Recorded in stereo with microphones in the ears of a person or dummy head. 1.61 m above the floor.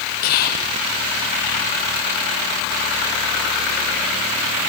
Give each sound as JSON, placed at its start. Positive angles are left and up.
{"t": 0.2, "sound": "whispering", "side_deg": 55, "distance_m": 0.8}